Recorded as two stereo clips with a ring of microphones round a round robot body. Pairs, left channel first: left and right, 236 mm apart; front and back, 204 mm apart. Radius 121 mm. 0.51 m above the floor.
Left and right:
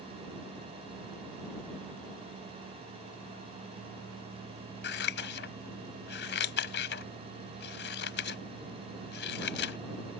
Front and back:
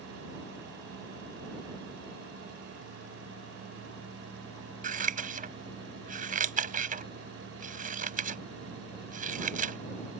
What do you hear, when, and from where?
4.8 s scissors: 135° left